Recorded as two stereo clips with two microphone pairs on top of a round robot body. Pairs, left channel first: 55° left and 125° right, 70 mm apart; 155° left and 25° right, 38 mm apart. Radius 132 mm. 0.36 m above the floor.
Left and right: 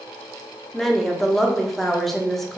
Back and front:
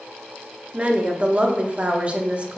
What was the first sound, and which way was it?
A woman speaking, 30° right.